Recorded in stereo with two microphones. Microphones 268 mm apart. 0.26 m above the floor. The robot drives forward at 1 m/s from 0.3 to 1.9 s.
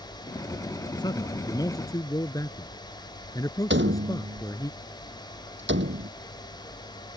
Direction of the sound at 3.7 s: 45° right (ahead or behind).